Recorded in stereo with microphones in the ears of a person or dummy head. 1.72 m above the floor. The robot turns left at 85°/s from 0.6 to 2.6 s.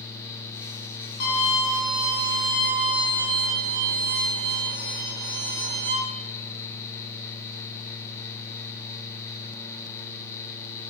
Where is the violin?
60° left, 1.1 m; by 6.0 s 60° right, 1.1 m.